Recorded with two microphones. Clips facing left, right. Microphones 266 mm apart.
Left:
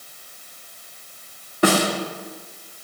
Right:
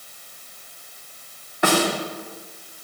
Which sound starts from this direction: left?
A snare drum, at 1.6 s.